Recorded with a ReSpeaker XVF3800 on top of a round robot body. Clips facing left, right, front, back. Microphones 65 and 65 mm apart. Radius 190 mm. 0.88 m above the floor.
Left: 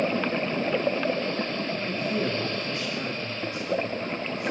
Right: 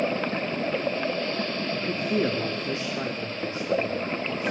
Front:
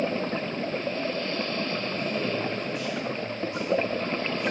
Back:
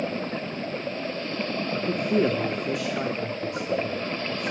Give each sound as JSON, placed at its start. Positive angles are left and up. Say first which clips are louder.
{"t": 1.7, "sound": "a man speaking", "louder": "right 4 dB, back 6 dB", "azimuth_deg": -160, "distance_m": 3.0}